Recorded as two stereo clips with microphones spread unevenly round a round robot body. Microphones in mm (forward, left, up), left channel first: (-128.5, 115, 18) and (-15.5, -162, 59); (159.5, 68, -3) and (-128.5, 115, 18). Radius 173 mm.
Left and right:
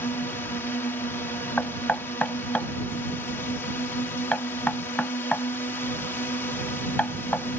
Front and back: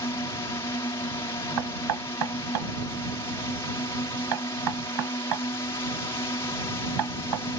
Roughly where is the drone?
Ahead left.